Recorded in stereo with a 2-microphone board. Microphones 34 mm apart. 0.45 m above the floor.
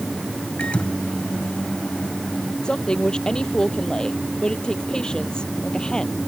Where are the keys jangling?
No keys jangling in this recording.